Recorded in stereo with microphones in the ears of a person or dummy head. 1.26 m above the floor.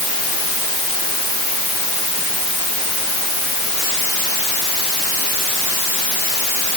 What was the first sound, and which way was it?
Only background noise.